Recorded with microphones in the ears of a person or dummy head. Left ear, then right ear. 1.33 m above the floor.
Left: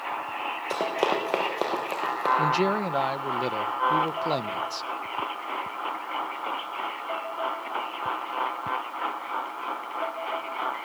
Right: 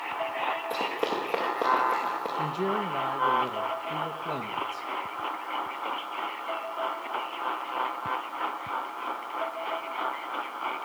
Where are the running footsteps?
70° left (ahead or behind), 4.5 m.